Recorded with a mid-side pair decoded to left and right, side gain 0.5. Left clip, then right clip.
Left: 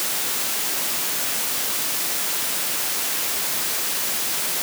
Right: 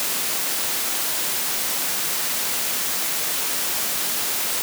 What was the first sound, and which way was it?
Only background noise.